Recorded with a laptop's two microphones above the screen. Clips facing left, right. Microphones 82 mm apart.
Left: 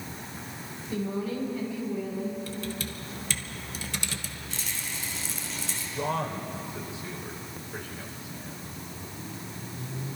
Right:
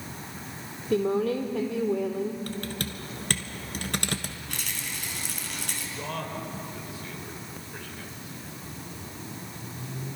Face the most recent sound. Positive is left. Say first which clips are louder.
# left 6 dB
turn(degrees=20)  # may be behind; listen again after turning